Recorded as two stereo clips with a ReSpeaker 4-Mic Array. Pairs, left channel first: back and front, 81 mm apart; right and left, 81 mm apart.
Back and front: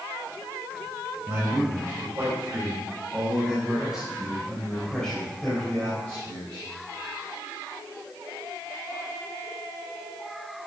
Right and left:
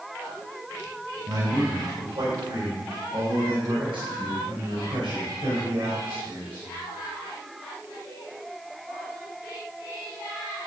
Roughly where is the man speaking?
Ahead left.